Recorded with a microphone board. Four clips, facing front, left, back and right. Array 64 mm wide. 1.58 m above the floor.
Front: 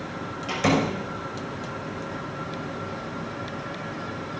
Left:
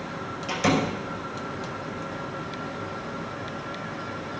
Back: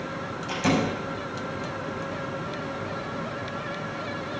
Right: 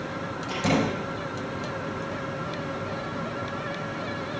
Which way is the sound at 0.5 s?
30° left.